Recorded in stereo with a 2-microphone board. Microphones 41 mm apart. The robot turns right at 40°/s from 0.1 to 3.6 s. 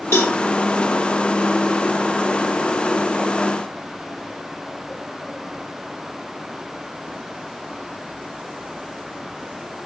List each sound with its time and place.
0.1 s a cowbell: 80° left, 1.4 m; by 0.3 s 85° left, 1.4 m